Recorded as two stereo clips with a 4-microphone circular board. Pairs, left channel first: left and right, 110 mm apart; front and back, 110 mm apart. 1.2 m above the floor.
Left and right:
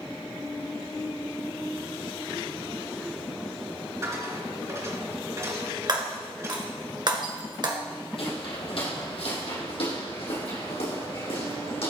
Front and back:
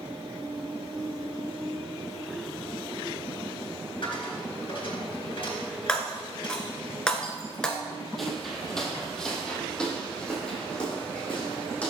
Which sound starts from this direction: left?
Footsteps, at 8.2 s.